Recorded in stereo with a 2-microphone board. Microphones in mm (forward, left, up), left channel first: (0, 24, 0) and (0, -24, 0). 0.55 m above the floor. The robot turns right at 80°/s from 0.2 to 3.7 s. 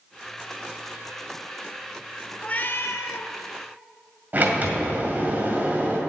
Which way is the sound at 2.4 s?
25° left.